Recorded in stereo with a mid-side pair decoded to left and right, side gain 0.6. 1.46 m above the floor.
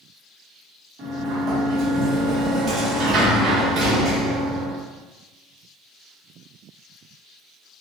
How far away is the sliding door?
About 1.6 m.